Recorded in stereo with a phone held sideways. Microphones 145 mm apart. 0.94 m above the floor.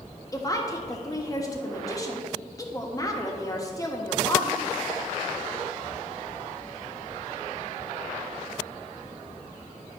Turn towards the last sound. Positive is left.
turn(degrees=25)  # may be behind; listen again after turning